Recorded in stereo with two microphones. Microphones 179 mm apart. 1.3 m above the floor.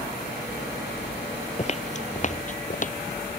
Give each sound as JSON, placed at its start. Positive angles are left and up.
{"t": 1.6, "sound": "footsteps", "side_deg": 40}